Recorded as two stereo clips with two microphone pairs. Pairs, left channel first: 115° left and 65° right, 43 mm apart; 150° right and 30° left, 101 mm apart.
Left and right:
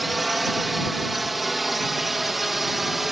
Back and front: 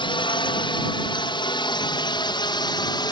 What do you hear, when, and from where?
0.0 s a drone: 150° right; by 3.1 s 145° right